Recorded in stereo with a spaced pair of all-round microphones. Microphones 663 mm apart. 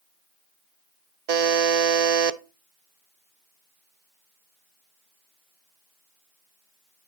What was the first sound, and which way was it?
A buzzer, 70° right (ahead or behind).